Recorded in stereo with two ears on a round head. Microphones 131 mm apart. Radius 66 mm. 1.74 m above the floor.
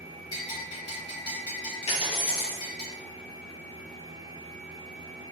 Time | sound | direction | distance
0.3 | a bell | 30° left (ahead or behind) | 1.6 m
1.9 | a dropped coin | 45° left (ahead or behind) | 1.4 m